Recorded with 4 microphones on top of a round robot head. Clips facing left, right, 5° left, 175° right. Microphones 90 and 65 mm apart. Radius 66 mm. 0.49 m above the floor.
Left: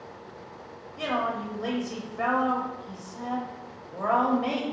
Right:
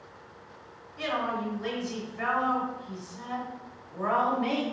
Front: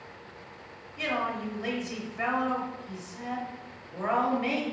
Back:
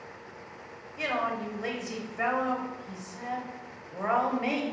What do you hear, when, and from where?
1.0 s a woman speaking: 105° left, 1.1 m